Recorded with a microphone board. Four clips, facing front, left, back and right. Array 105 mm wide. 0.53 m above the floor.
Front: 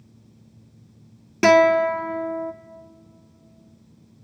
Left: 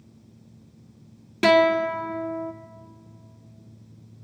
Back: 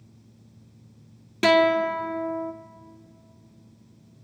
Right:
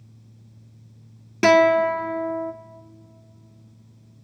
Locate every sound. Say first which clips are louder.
1.4 s a guitar: right 3 dB, front 4 dB; 30° right, 1.1 m